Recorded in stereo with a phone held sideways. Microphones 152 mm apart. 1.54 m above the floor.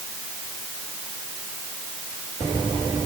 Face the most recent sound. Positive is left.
No sound to turn to.